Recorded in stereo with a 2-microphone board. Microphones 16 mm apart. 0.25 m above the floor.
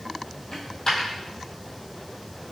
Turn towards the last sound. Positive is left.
turn(degrees=45)  # may be behind; listen again after turning